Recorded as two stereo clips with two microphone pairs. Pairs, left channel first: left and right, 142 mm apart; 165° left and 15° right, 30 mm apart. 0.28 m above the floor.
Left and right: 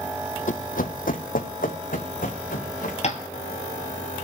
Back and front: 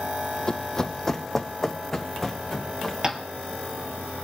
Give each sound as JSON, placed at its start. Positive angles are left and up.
{"t": 0.5, "sound": "running footsteps", "azimuth_deg": 105, "distance_m": 0.6}
{"t": 3.0, "sound": "tapping", "azimuth_deg": 50, "distance_m": 1.3}